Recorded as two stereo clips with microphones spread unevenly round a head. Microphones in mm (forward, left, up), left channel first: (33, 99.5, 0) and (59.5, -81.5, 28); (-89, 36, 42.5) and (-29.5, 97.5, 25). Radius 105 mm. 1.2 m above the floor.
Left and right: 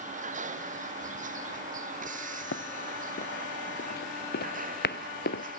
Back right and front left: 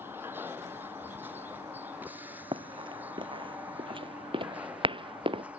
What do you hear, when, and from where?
0.0 s a vehicle: 35° right
2.5 s running footsteps: 65° left